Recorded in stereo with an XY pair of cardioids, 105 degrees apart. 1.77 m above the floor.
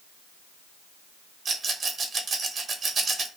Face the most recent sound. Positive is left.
turn(degrees=-45)